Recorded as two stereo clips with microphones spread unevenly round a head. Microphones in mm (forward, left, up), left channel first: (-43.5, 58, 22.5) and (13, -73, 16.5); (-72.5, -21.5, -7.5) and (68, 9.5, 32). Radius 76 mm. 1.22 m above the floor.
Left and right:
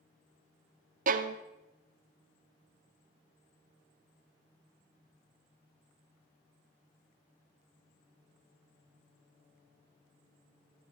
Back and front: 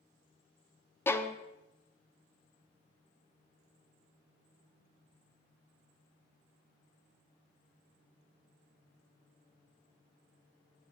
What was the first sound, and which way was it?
A violin, 100° right.